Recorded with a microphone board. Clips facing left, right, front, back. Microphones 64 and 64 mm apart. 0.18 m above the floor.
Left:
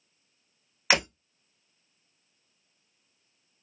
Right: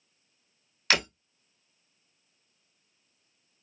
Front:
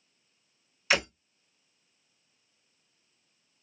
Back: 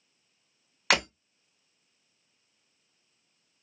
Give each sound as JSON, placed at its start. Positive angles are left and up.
{"t": 0.9, "sound": "breaking glass", "azimuth_deg": 160, "distance_m": 3.0}